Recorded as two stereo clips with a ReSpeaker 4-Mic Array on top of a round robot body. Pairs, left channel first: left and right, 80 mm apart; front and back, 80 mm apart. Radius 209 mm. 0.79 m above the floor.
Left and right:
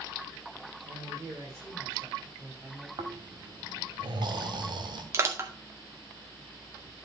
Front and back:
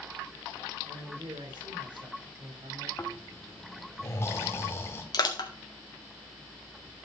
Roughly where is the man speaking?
Behind right.